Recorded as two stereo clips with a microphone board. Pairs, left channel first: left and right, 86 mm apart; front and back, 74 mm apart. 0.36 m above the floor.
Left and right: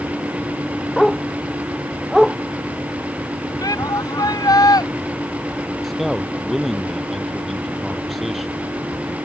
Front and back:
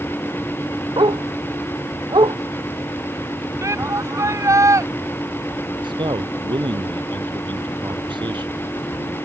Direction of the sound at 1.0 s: Straight behind.